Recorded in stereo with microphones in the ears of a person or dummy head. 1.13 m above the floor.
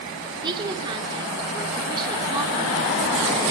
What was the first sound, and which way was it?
A woman speaking, 25° right (ahead or behind).